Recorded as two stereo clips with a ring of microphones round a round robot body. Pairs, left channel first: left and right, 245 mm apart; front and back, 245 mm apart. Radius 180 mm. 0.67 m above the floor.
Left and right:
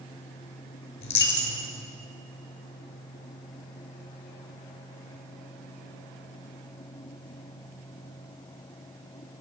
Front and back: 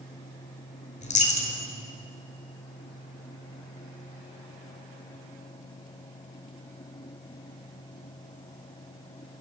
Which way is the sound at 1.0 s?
60° left.